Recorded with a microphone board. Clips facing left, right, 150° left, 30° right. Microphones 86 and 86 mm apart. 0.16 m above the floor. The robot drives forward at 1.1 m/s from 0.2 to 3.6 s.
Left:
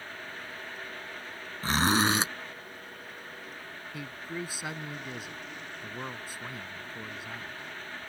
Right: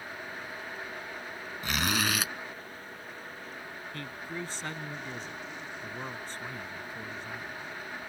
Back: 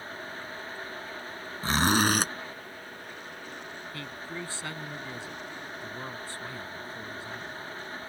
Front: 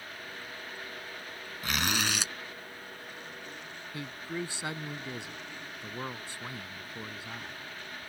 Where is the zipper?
115° left; by 2.3 s 140° left.